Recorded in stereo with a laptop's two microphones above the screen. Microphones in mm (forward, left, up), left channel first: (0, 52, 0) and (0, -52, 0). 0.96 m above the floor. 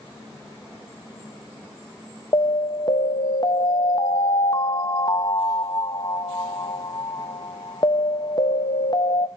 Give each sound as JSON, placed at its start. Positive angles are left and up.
{"t": 2.3, "sound": "an alarm", "side_deg": 45, "distance_m": 0.6}